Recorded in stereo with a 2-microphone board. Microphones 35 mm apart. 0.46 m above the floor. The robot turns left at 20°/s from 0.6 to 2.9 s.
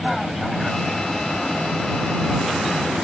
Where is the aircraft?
5° right (ahead or behind); by 3.0 s 35° right (ahead or behind).